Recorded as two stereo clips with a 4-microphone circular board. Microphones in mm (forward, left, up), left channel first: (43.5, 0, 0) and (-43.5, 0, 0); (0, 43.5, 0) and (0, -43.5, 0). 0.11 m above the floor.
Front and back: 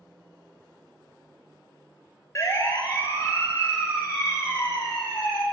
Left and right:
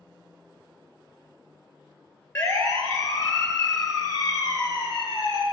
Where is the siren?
40° left, 2.5 m; by 5.4 s 60° left, 4 m.